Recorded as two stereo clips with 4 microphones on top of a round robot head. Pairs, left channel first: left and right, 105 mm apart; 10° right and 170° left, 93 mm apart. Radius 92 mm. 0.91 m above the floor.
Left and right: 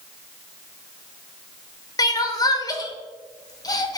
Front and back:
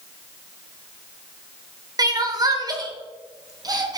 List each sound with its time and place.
2.0 s crying: 135° left, 1.1 m